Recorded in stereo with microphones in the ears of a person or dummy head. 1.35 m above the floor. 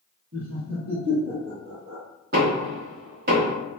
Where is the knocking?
55° right (ahead or behind), 1.4 m.